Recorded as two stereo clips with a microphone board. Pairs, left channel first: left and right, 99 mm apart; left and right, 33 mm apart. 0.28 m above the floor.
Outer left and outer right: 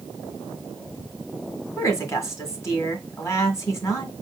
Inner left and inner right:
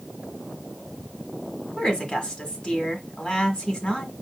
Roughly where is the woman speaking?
Left.